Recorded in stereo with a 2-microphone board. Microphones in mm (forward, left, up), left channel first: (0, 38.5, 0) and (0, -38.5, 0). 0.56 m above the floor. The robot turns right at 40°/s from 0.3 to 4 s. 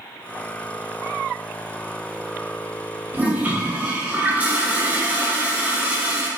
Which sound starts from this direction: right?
A toilet flushing, at 3.1 s.